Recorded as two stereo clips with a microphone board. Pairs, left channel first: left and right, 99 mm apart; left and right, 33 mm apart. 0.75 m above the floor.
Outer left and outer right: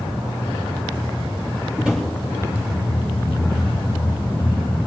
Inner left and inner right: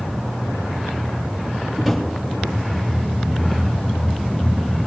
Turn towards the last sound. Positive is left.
turn(degrees=-10)  # may be behind; listen again after turning